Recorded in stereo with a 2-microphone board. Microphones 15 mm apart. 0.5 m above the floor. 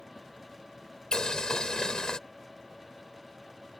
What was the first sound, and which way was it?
Boiling, 60° left (ahead or behind).